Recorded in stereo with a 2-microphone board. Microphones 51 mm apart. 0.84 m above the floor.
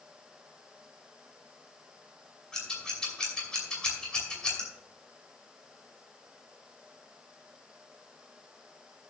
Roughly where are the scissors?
Centre.